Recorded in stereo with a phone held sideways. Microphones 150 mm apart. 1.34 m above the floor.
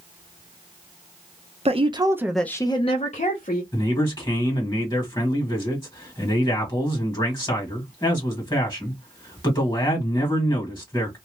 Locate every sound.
1.6 s a woman speaking: 45° right (ahead or behind), 0.8 m; by 3.6 s 65° left (ahead or behind), 1.1 m
3.7 s a man speaking: 30° left (ahead or behind), 1.5 m